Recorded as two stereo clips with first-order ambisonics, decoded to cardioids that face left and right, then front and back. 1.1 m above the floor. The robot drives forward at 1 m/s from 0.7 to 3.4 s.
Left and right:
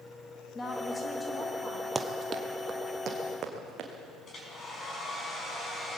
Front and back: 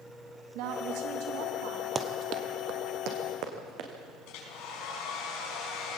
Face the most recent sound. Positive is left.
turn(degrees=25)